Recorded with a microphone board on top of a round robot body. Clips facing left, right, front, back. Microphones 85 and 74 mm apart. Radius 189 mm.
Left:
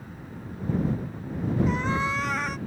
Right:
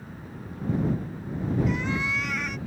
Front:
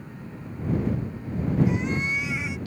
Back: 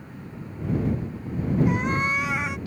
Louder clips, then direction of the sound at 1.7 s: Left 2 dB, back 2 dB; 140° left.